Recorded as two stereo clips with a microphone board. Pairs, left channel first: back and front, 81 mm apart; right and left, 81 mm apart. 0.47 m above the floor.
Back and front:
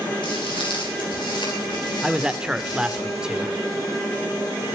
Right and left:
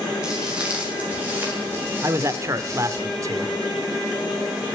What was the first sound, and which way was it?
Footsteps, 170° left.